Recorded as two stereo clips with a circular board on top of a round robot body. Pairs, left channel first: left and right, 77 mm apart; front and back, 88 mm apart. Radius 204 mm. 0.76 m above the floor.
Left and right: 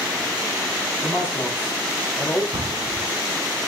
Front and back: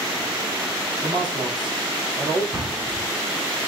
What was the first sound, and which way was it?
A man speaking, 150° left.